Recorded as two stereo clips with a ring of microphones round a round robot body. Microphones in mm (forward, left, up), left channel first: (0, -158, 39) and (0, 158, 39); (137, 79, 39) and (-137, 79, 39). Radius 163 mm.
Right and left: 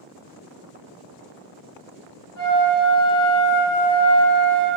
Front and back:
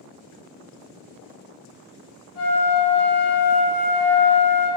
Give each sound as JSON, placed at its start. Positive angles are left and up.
{"t": 2.4, "sound": "a flute", "azimuth_deg": 160, "distance_m": 1.5}